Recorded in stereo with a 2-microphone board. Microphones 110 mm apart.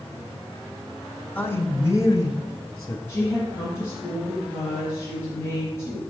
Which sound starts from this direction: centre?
A man speaking, at 1.4 s.